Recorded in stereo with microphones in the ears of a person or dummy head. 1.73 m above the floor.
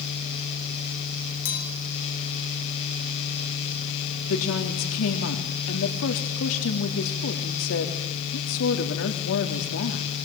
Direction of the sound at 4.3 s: 80° left.